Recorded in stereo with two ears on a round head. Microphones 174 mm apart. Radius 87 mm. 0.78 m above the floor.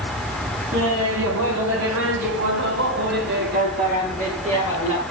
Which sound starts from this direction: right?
Laughter, at 0.7 s.